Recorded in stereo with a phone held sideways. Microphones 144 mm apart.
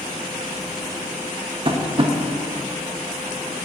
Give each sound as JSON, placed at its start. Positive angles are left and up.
{"t": 1.6, "sound": "tapping", "side_deg": -40, "distance_m": 0.5}